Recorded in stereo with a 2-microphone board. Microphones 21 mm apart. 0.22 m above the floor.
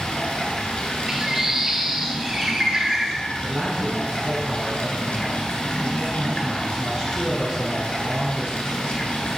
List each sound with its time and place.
0.0 s running water: 65° left (ahead or behind), 1.6 m
1.1 s a bird: 30° right (ahead or behind), 1.3 m
3.4 s a man speaking: 50° right (ahead or behind), 1.8 m